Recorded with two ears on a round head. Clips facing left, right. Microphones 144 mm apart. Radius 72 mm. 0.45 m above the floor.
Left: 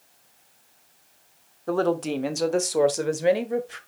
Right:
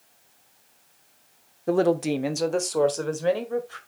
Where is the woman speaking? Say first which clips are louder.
Right 2 dB; 20° right (ahead or behind), 0.9 m; by 3.8 s 20° left (ahead or behind), 1.7 m.